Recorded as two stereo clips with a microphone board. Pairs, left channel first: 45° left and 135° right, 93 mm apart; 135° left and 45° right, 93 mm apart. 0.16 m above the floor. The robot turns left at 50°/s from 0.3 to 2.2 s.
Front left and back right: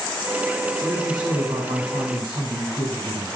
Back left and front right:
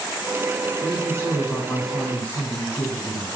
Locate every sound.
0.8 s a woman speaking: 85° right, 7.5 m; by 3.4 s 155° right, 7.5 m